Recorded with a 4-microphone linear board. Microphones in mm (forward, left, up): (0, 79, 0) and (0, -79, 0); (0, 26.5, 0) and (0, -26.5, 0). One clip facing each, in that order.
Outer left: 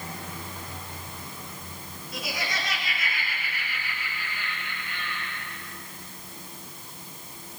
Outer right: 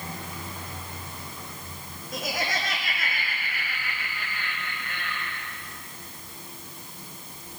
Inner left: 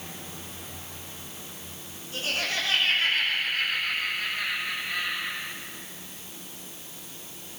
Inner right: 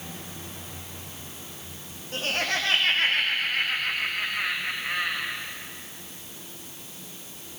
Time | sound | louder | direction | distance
2.1 | laughter | outer right 3 dB, inner right 2 dB | 45° right (ahead or behind) | 7 m